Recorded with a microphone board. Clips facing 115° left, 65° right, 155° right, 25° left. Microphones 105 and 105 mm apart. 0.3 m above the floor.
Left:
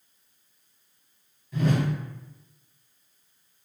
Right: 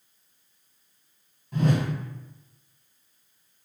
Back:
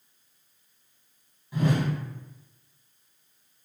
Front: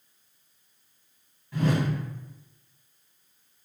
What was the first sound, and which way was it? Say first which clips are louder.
A whoosh: right 1 dB, even; 85° right.